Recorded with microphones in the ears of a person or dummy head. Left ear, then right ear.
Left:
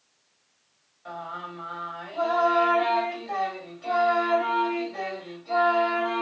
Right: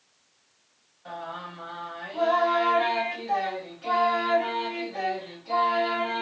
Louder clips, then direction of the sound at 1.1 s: Left 1 dB; 5° left (ahead or behind).